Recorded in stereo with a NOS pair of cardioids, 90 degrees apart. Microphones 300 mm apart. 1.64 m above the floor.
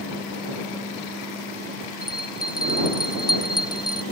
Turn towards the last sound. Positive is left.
turn(degrees=15)